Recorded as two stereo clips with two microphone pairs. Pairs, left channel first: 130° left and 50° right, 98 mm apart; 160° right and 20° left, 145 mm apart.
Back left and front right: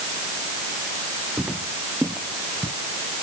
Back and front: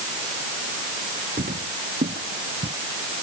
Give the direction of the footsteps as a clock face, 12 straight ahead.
11 o'clock.